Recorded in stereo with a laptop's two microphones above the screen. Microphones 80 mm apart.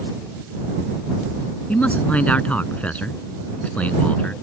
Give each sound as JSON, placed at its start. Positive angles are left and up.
{"t": 1.7, "sound": "a man speaking", "side_deg": 20}